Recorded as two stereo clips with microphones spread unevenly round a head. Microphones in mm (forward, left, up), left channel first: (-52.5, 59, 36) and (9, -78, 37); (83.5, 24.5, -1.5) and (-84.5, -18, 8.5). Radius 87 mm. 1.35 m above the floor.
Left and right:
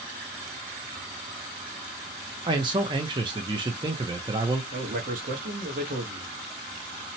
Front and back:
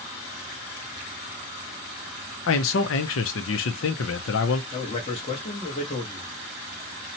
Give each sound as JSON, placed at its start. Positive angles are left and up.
{"t": 2.5, "sound": "a man speaking", "azimuth_deg": 0, "distance_m": 0.6}
{"t": 4.7, "sound": "a man speaking", "azimuth_deg": -40, "distance_m": 1.1}